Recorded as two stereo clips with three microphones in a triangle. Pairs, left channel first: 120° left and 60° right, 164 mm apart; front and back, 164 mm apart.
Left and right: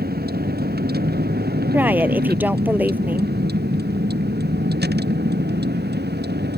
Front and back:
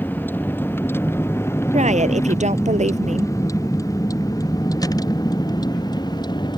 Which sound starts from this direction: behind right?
A woman speaking, at 1.7 s.